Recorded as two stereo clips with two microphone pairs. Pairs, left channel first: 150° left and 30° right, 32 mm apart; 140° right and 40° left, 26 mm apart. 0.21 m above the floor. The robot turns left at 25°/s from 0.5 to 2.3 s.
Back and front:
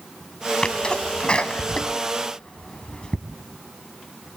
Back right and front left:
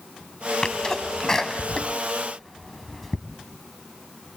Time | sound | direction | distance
0.6 | a sneeze | 175° right | 1.9 m